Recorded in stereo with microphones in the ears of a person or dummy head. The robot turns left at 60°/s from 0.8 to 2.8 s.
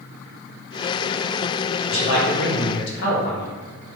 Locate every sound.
1.9 s a man speaking: 120° left, 1.2 m; by 3.5 s 65° left, 1.2 m